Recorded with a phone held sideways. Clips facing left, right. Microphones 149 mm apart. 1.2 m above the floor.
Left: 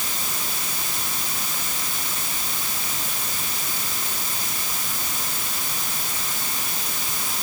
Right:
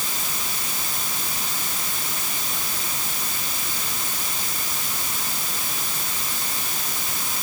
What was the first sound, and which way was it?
Only background noise.